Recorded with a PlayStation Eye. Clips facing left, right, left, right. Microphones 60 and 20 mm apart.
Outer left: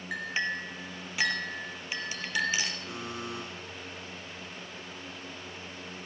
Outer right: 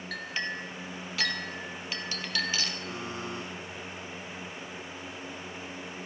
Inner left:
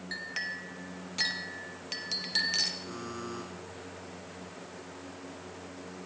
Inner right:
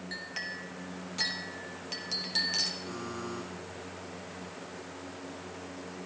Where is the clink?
20° left (ahead or behind), 1.2 m.